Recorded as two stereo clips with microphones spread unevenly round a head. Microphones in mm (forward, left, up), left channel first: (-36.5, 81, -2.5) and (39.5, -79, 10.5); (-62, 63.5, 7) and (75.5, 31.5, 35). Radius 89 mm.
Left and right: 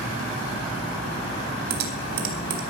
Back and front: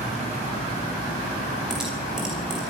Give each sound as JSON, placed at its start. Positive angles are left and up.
{"t": 1.7, "sound": "typing on a keyboard", "azimuth_deg": -100, "distance_m": 3.5}